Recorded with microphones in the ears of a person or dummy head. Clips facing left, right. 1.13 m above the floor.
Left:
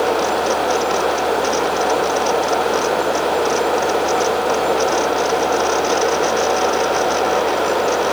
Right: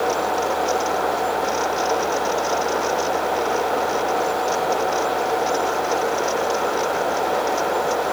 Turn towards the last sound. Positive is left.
No sound to turn to.